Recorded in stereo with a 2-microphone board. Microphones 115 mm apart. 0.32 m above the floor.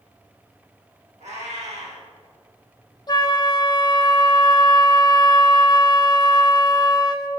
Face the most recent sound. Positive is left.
turn(degrees=35)  # may be behind; listen again after turning